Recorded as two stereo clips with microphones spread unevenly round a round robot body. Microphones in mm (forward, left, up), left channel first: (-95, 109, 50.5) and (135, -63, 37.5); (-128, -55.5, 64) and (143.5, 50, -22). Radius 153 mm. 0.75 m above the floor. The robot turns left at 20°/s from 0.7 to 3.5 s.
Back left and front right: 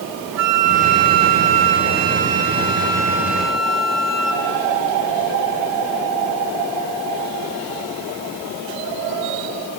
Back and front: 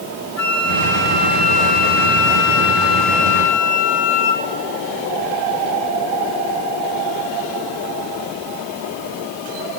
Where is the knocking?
No knocking in this recording.